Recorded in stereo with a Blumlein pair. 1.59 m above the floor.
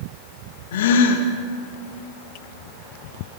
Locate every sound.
0.7 s a gasp: 55° left, 2 m